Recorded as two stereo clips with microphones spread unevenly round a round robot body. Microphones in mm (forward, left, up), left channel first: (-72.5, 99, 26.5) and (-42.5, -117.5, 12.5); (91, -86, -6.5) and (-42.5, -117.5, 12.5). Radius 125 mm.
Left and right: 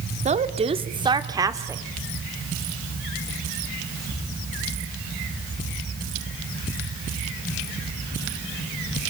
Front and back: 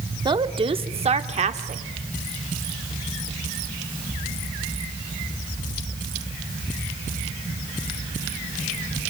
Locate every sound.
0.2 s a woman speaking: 115° right, 1.4 m; by 1.8 s 155° right, 1.8 m